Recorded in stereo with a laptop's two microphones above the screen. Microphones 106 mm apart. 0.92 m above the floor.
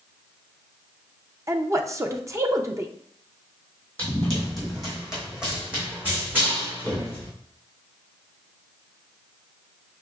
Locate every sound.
1.5 s a woman speaking: 30° right (ahead or behind), 0.5 m
4.0 s running footsteps: 10° left (ahead or behind), 1.8 m; by 7.3 s 25° right (ahead or behind), 3 m